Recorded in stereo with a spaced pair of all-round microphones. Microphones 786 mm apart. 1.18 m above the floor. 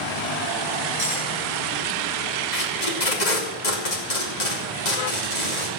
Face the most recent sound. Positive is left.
turn(degrees=60)  # may be behind; listen again after turning